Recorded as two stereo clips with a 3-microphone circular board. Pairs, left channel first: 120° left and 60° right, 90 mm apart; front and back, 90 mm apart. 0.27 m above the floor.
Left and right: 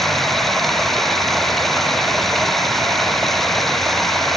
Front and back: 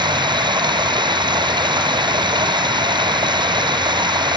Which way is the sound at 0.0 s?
150° right.